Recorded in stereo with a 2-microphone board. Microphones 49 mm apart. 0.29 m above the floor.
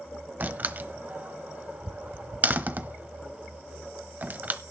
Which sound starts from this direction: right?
A door slam, at 0.4 s.